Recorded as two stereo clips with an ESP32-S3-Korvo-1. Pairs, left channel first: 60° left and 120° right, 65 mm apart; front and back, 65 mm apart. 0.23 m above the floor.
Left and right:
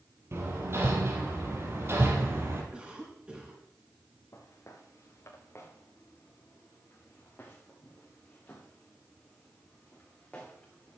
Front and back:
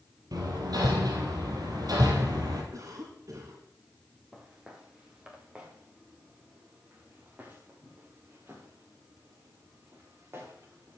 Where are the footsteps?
100° left, 4.5 m; by 11.0 s 135° left, 7.5 m.